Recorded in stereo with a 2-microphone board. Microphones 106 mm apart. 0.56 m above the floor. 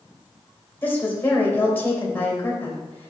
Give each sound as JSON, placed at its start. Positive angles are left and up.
{"t": 0.8, "sound": "a woman speaking", "side_deg": 20, "distance_m": 2.5}